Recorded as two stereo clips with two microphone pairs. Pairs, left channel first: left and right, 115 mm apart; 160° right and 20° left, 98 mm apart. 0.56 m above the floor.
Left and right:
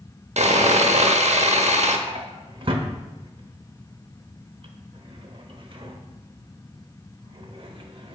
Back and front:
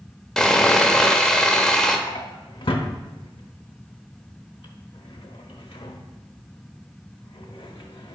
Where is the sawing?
75° right, 0.7 m.